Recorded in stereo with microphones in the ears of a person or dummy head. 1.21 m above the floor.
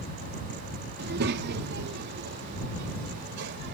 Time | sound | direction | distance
1.0 | a child speaking | 65° right (ahead or behind) | ?